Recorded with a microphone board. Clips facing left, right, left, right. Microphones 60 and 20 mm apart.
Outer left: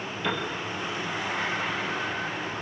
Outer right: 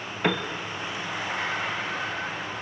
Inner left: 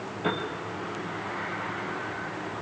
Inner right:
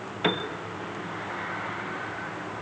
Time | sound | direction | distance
0.2 | a piano | 55° right (ahead or behind) | 1.8 m